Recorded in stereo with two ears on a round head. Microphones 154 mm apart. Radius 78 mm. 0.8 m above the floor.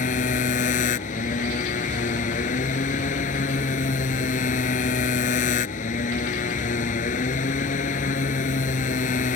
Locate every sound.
0.0 s a motorcycle: 45° left (ahead or behind)